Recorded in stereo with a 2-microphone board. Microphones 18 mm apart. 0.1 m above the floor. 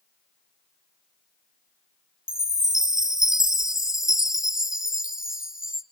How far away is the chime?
About 0.7 m.